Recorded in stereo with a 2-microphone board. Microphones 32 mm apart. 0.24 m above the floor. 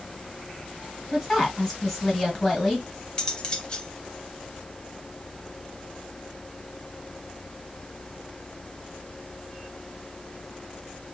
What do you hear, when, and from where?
1.1 s a woman speaking: 5° left (ahead or behind), 2.5 m
3.2 s cutlery clinking: 25° left (ahead or behind), 0.8 m